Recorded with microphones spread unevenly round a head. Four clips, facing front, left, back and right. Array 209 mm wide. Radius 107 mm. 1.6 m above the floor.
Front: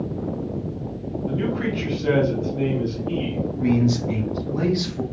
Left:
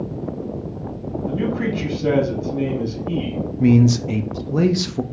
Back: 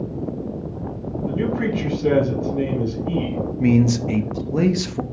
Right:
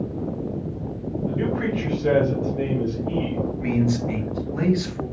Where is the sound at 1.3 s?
120° left, 2.5 m.